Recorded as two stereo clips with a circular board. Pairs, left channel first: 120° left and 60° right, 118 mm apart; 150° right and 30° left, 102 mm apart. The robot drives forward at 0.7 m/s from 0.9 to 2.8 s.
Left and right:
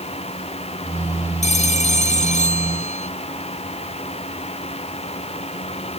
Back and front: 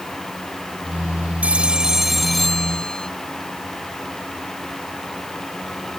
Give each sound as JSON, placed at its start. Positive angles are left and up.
{"t": 1.4, "sound": "a phone ringing", "azimuth_deg": 105}